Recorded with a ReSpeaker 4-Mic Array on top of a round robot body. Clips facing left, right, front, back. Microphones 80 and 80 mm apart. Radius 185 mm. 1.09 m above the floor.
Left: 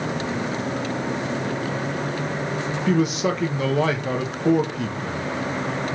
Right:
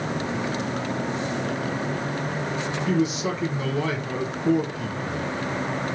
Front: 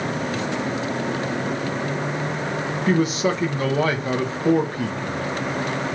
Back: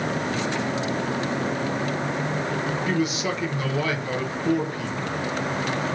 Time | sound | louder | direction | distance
2.9 | a man speaking | left 3 dB, front 8 dB | 55° left | 0.9 m